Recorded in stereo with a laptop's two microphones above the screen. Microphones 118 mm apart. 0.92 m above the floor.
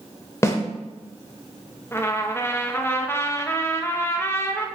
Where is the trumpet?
20° left (ahead or behind), 0.5 m.